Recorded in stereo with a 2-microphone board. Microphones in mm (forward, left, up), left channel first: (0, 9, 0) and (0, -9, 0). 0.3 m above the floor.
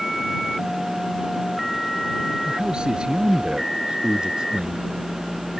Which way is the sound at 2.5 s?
75° right (ahead or behind).